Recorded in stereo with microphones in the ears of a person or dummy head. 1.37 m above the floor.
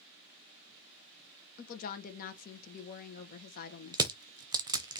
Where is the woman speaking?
55° left (ahead or behind), 1.2 m.